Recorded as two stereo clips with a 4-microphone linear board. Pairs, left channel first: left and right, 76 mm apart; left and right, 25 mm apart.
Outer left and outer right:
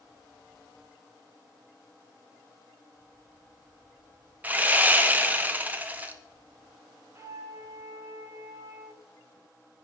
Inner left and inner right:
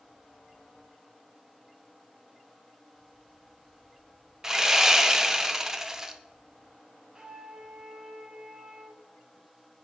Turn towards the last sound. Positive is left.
turn(degrees=-40)  # may be behind; listen again after turning